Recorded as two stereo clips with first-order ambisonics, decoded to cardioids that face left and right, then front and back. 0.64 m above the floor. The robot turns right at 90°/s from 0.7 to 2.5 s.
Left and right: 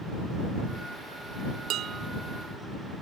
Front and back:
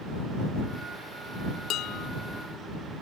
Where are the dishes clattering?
50° right; by 2.1 s 15° right.